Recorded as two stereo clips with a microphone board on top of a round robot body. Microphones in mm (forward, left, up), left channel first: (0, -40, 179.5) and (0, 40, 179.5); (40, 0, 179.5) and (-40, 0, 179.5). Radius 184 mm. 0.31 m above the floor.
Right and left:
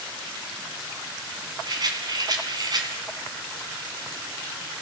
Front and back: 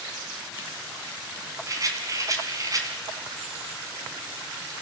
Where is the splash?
No splash in this recording.